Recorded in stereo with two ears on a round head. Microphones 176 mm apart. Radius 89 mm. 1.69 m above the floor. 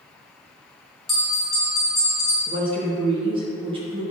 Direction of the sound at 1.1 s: Centre (ahead or behind).